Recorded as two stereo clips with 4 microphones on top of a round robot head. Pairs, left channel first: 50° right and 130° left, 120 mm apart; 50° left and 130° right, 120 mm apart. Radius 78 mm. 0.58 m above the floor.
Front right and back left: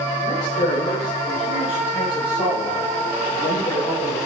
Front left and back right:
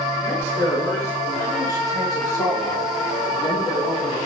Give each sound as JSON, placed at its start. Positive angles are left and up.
{"t": 0.2, "sound": "a man speaking", "azimuth_deg": -20, "distance_m": 7.5}